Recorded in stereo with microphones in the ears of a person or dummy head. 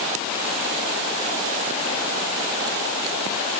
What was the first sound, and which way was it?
Only background noise.